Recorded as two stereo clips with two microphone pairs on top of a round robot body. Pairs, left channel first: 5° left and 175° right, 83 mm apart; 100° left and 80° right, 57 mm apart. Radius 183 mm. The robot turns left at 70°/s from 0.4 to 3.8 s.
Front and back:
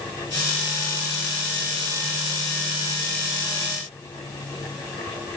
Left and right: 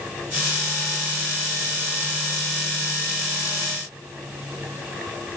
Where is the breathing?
No breathing in this recording.